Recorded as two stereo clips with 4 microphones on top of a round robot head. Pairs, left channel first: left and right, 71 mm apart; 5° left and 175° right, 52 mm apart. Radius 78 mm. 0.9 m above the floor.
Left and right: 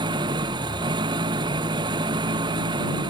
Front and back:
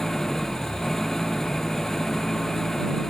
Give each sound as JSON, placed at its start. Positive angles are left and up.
{"t": 0.0, "sound": "an engine running", "azimuth_deg": -80}